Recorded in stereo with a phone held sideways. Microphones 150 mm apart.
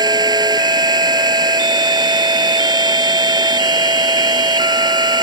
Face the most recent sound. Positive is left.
turn(degrees=-25)  # may be behind; listen again after turning